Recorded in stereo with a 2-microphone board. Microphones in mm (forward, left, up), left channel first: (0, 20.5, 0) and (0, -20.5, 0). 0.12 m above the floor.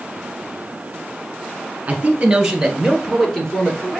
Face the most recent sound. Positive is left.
turn(degrees=20)  # may be behind; listen again after turning